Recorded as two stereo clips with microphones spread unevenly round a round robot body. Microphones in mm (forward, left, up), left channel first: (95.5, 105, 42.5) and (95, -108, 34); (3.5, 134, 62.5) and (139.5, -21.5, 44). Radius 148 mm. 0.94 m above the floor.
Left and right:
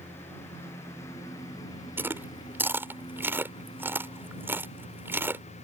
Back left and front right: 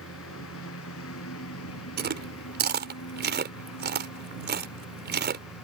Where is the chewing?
10° right.